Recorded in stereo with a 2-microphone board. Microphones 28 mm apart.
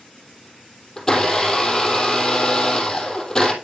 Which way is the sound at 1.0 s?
15° left (ahead or behind).